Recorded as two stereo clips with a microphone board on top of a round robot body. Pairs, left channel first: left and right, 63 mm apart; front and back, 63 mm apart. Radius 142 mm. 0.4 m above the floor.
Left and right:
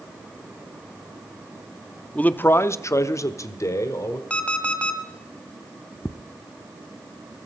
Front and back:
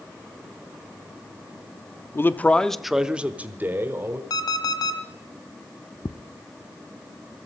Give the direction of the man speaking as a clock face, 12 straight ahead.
11 o'clock.